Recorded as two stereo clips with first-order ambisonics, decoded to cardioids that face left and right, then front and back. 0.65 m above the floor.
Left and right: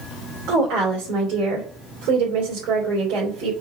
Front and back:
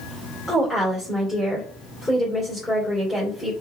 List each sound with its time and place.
0.5 s a woman speaking: 75° right, 3 m